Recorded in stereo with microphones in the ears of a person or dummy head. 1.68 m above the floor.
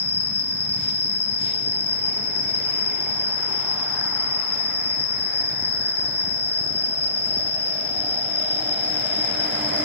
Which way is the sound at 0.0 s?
15° right (ahead or behind).